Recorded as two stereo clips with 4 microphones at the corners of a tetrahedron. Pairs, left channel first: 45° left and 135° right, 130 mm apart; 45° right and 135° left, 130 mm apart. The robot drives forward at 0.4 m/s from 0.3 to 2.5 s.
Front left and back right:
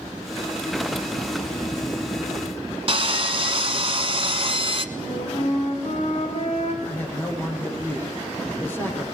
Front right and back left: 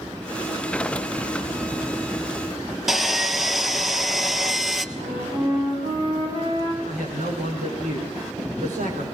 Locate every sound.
2.9 s sawing: 135° right, 1.2 m
5.0 s a flute: 80° left, 7 m
6.8 s a man speaking: 120° left, 8.5 m